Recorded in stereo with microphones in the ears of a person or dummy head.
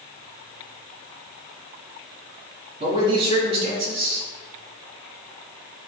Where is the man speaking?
35° right (ahead or behind), 3 m.